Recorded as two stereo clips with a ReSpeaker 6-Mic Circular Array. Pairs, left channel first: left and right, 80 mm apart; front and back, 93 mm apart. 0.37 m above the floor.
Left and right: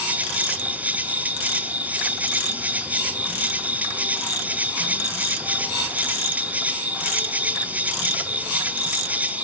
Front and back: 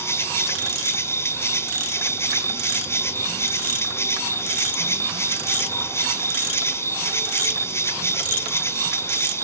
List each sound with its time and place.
0.0 s an insect: 35° right, 1.7 m